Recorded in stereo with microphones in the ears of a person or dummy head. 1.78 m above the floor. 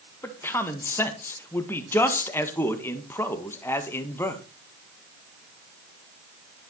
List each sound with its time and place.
0.2 s a man speaking: 15° left (ahead or behind), 1.6 m